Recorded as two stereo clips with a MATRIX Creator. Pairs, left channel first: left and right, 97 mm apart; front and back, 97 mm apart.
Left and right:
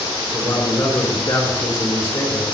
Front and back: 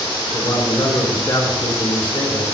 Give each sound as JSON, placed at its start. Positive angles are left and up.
{"t": 0.3, "sound": "a man speaking", "azimuth_deg": 45, "distance_m": 3.0}